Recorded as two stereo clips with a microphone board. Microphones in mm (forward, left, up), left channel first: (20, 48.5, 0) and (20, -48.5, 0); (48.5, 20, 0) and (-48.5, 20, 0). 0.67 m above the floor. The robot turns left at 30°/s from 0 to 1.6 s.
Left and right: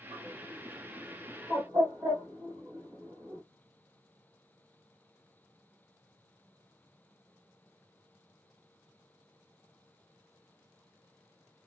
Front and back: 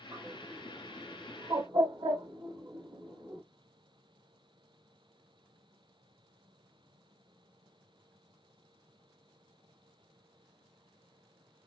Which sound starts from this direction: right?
A bird, at 0.1 s.